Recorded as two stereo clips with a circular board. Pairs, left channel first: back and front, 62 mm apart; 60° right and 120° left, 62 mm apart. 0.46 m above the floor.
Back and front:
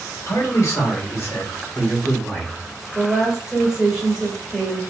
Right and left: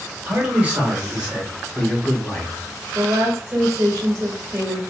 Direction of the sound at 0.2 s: Straight behind.